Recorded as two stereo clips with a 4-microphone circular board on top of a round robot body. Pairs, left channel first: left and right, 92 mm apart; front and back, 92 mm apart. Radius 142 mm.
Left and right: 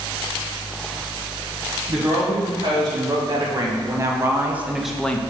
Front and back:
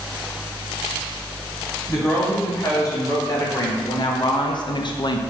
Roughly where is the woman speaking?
Ahead right.